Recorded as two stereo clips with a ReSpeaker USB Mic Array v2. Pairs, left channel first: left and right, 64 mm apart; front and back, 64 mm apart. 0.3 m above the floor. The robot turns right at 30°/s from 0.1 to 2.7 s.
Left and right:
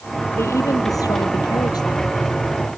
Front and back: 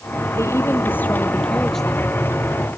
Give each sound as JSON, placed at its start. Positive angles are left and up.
{"t": 0.4, "sound": "a woman speaking", "azimuth_deg": 45}